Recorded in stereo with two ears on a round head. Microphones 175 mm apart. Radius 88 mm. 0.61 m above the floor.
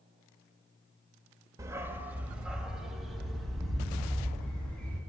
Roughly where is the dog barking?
Centre.